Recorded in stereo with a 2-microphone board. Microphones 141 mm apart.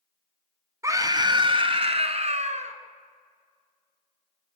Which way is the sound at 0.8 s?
20° right (ahead or behind).